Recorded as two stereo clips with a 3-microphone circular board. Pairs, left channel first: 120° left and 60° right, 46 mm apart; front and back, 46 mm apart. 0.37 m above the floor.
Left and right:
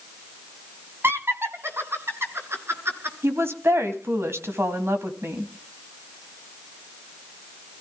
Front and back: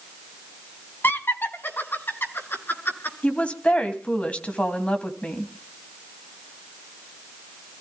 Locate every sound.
1.0 s laughter: 30° right, 2.5 m; by 3.1 s 35° right, 5.5 m
3.2 s a woman speaking: 55° right, 3 m